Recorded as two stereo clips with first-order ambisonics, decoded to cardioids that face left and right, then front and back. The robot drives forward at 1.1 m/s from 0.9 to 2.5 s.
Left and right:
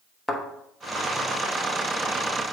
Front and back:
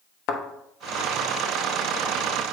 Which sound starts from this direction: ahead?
A thud, at 0.3 s.